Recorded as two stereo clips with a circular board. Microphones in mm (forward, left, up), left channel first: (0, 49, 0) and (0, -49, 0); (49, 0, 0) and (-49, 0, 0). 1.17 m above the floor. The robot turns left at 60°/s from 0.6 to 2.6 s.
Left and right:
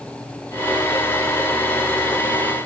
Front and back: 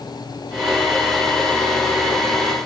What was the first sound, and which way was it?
Only background noise.